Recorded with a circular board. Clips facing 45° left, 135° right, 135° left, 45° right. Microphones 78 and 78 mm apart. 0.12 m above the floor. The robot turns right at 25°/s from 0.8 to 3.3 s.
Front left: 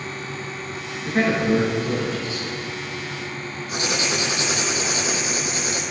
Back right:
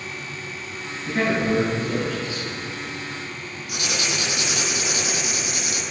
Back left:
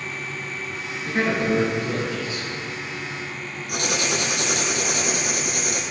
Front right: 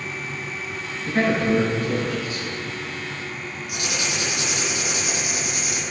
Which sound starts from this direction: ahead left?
A man speaking, at 1.1 s.